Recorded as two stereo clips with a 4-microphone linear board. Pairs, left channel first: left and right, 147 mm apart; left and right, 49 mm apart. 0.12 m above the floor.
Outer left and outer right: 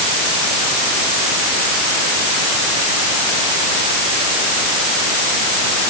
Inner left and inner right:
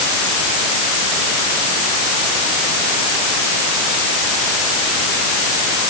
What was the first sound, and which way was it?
Only background noise.